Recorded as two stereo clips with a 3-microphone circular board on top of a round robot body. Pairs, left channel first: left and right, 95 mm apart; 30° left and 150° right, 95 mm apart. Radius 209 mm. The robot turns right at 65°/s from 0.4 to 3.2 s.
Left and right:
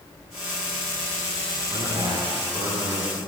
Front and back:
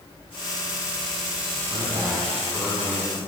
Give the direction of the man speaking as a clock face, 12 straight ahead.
3 o'clock.